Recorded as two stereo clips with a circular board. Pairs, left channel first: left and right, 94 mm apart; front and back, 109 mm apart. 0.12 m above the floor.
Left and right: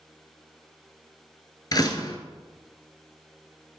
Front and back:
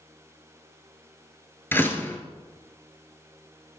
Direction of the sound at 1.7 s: 65° left.